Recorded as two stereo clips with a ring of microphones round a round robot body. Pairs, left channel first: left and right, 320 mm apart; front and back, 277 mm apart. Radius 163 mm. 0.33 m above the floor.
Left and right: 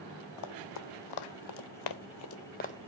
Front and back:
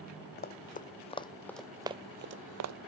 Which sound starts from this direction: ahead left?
Running footsteps, at 0.4 s.